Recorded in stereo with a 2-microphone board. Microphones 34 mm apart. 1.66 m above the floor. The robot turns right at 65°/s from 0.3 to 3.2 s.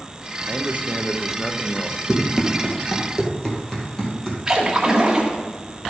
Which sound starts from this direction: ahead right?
A man speaking, at 0.5 s.